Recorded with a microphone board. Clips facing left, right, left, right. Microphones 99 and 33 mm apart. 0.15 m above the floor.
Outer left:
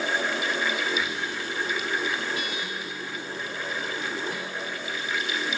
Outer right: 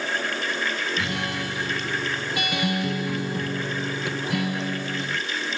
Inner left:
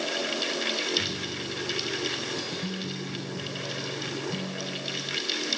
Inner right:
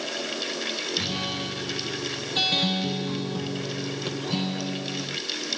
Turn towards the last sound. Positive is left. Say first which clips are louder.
# outer right 2 dB, inner right 2 dB
turn(degrees=-75)  # may be behind; listen again after turning